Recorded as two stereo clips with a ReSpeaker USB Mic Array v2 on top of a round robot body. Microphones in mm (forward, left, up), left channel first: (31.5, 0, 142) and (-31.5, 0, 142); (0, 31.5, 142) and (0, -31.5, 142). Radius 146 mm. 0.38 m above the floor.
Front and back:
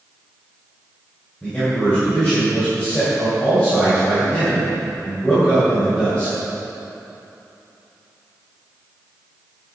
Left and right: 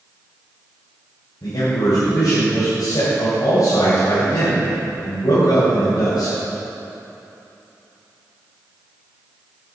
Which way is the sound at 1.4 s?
75° left.